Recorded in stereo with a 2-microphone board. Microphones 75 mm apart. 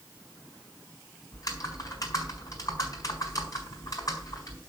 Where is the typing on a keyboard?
45° left (ahead or behind), 4 m.